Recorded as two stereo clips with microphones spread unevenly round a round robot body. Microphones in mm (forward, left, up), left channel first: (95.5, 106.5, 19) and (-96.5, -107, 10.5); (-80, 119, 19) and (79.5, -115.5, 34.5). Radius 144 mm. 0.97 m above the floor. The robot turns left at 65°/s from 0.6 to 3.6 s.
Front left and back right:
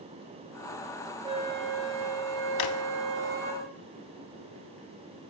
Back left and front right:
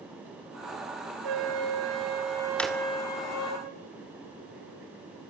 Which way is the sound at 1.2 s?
55° right.